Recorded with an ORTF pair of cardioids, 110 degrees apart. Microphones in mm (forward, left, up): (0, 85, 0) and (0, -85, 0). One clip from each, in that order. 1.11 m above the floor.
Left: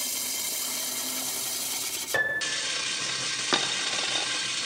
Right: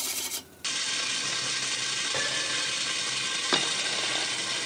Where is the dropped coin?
15° left, 1.4 m.